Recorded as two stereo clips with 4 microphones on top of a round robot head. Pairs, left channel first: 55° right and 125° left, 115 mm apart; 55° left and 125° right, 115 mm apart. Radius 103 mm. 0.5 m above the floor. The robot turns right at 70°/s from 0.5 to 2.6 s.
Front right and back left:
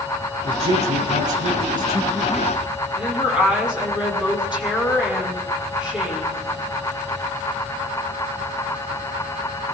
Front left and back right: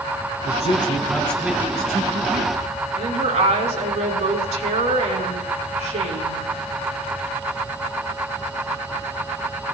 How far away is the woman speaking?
About 5.5 m.